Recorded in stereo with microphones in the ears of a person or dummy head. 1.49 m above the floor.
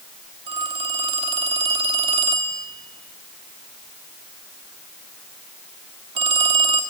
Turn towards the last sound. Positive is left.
turn(degrees=-25)  # may be behind; listen again after turning